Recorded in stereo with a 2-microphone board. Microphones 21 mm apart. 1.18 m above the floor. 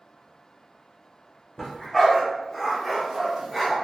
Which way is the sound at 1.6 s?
10° left (ahead or behind).